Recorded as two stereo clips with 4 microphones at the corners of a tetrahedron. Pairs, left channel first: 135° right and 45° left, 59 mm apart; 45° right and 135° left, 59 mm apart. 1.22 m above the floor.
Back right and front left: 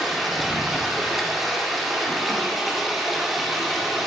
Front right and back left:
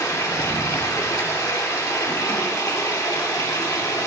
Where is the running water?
40° right, 2 m.